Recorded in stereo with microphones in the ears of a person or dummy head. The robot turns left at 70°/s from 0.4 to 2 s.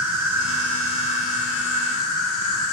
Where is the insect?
170° right, 1.4 m; by 2.7 s 80° left, 1.4 m.